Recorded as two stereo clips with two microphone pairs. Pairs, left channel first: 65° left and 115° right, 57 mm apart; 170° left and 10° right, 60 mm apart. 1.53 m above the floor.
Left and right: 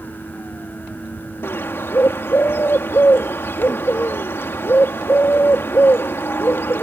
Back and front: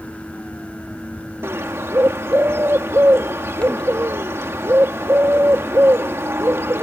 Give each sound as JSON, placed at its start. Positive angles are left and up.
{"t": 1.4, "sound": "a bird", "azimuth_deg": 25}